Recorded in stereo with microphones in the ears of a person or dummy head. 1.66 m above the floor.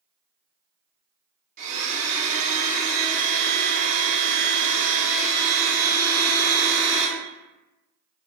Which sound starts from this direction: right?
A blender, at 1.6 s.